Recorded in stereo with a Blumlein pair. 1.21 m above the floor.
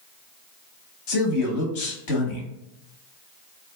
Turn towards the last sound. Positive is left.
turn(degrees=45)